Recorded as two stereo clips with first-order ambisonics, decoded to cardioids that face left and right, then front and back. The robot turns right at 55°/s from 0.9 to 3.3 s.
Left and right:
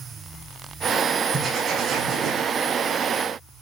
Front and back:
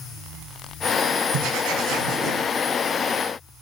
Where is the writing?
Straight behind, 7 m; by 2.5 s 115° right, 7 m.